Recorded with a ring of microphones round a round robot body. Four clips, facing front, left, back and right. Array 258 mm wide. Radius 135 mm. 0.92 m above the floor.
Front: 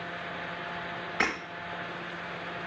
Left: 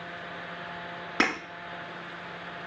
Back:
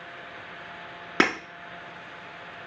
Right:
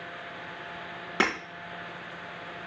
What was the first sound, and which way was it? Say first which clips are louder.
Breaking glass: even, back 7 dB; 175° right.